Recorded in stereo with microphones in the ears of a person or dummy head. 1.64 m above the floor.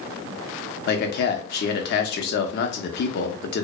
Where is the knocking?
I don't hear knocking.